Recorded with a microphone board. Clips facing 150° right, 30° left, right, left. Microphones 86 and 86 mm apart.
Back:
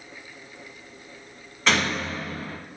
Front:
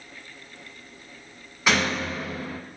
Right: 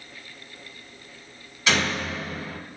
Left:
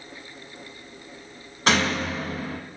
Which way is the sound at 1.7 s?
110° left.